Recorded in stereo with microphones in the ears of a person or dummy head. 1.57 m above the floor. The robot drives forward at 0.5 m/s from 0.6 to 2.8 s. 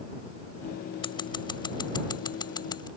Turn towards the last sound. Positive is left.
turn(degrees=20)  # may be behind; listen again after turning